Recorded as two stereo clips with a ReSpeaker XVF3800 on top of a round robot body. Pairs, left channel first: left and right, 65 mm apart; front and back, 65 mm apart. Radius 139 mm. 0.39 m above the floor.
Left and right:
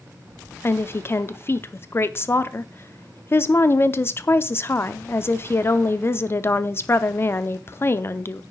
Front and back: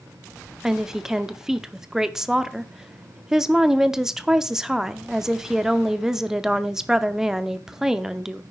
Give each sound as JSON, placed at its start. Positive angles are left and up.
{"t": 0.6, "sound": "a woman speaking", "azimuth_deg": 100, "distance_m": 0.9}